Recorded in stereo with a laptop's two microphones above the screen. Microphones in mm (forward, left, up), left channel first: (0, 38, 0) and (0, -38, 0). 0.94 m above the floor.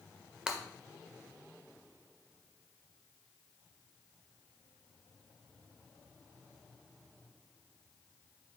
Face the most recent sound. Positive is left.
turn(degrees=-10)  # may be behind; listen again after turning